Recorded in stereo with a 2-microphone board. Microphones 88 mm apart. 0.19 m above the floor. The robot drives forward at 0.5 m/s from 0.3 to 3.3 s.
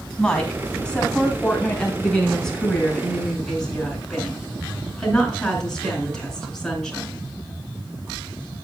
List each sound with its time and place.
0.2 s a woman speaking: 10° left (ahead or behind), 1.7 m; by 7.3 s 5° left (ahead or behind), 2.5 m